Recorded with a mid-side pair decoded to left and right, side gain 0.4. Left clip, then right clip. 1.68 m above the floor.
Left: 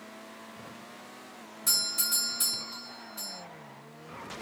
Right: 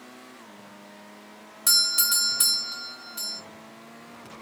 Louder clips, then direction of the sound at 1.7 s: Right 7 dB; 65° right.